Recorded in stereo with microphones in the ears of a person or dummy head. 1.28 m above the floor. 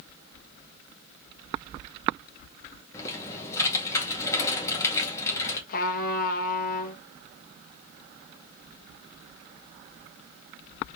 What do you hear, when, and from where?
2.9 s typing on a keyboard: 20° left (ahead or behind), 1.8 m
5.7 s a trumpet: 50° left (ahead or behind), 1.0 m